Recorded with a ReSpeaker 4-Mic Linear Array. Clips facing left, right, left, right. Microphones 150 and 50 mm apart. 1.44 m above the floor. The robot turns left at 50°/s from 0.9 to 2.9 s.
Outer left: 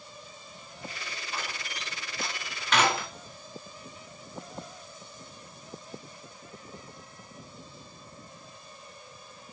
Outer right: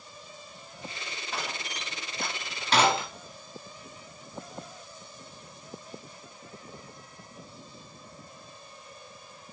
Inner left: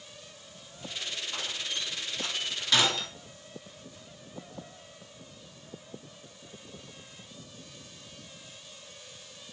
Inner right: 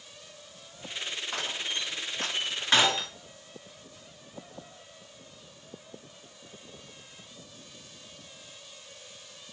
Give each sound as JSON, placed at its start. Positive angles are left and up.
{"t": 1.3, "sound": "a door slam", "side_deg": -70, "distance_m": 2.0}